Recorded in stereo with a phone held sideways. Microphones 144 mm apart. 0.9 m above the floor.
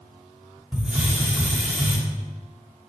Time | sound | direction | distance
0.7 | a hiss | 10° right (ahead or behind) | 2.5 m